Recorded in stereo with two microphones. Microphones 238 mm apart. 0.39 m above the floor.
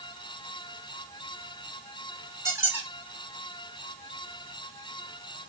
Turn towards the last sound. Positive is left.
turn(degrees=-10)  # may be behind; listen again after turning